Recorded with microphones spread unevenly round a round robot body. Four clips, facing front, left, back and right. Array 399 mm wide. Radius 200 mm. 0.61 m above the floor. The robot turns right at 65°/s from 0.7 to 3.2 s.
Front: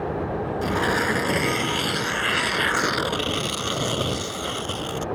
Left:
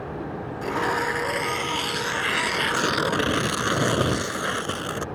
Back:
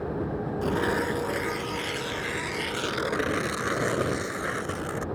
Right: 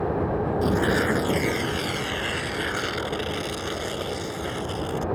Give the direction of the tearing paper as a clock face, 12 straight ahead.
3 o'clock.